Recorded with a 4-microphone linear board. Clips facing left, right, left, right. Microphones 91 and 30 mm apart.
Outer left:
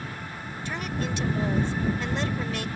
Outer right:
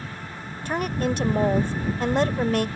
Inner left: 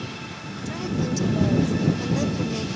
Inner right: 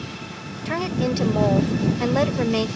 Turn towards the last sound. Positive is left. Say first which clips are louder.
# outer right 7 dB, inner right 4 dB
turn(degrees=-50)  # may be behind; listen again after turning